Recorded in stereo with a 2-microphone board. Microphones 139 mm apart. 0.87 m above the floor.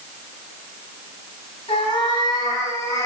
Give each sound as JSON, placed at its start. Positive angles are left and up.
{"t": 1.7, "sound": "a cat meowing", "side_deg": 40, "distance_m": 1.8}